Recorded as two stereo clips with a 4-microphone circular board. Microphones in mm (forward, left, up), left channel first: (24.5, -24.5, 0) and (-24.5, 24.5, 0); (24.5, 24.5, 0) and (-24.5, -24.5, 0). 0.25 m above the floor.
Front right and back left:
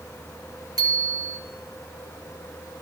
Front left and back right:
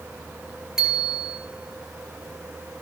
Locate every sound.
0.8 s a bicycle bell: 140° left, 3 m